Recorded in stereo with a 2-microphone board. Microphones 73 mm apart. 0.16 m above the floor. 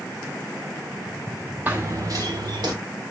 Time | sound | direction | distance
1.7 | running footsteps | 25° right (ahead or behind) | 0.9 m